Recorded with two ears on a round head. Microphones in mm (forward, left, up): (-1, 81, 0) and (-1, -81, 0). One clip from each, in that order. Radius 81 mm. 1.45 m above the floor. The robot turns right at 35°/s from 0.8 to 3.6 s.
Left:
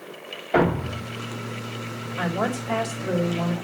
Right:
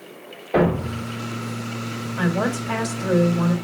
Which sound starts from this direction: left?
A thud, at 0.5 s.